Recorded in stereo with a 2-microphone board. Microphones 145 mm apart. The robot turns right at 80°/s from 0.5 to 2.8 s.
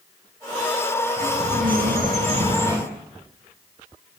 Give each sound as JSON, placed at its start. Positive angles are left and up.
{"t": 1.2, "sound": "a bird", "azimuth_deg": -150, "distance_m": 6.0}